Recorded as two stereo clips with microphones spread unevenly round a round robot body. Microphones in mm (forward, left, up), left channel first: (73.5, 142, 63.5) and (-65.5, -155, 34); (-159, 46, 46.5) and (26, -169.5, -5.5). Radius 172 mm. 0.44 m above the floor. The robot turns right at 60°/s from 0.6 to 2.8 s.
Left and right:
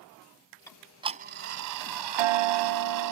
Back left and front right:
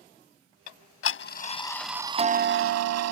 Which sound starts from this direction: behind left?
Ticking, at 0.7 s.